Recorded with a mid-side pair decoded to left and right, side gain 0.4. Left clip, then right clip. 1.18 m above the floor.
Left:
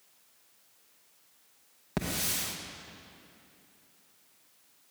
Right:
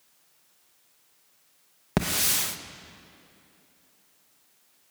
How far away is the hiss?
About 1.0 m.